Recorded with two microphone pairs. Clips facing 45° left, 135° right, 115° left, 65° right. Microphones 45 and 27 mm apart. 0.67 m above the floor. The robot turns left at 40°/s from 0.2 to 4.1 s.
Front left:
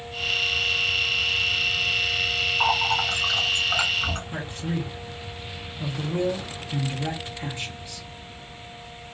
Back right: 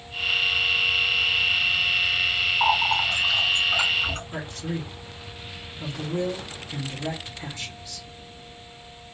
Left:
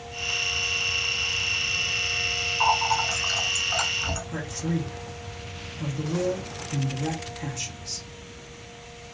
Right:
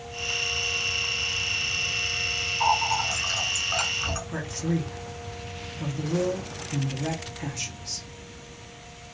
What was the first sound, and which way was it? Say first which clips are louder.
A running tap: back right 1 dB, left 1 dB; 60° left.